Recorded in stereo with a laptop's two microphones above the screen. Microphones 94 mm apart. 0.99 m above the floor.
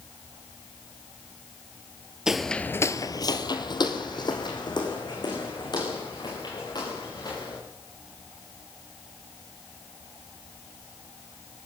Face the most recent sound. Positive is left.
turn(degrees=45)  # may be behind; listen again after turning